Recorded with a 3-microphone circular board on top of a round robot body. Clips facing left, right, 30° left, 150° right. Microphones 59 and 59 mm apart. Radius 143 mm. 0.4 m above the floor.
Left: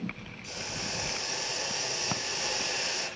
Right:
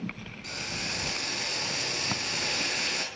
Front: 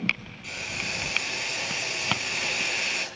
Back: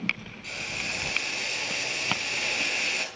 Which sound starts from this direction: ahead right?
Boiling, at 0.4 s.